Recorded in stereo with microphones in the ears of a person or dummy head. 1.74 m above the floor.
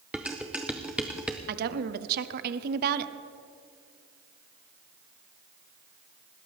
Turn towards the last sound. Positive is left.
turn(degrees=-55)  # may be behind; listen again after turning